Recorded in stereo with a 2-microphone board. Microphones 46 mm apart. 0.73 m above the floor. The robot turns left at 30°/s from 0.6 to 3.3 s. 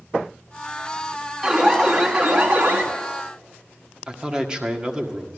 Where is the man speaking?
20° right (ahead or behind), 1.5 m.